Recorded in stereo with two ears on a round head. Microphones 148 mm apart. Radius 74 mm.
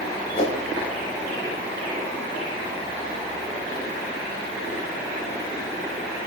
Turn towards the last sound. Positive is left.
turn(degrees=40)  # may be behind; listen again after turning